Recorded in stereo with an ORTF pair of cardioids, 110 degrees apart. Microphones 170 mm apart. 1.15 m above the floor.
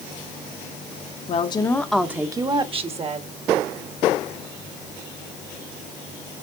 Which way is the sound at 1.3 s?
40° left.